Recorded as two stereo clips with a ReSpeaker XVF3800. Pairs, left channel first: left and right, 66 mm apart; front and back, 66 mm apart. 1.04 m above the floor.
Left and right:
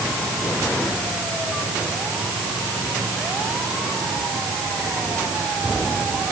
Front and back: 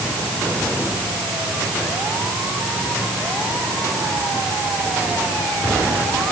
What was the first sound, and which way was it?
Only background noise.